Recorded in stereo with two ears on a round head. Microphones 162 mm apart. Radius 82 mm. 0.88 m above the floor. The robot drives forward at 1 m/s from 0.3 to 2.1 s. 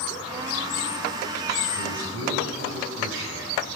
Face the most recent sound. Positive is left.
turn(degrees=-80)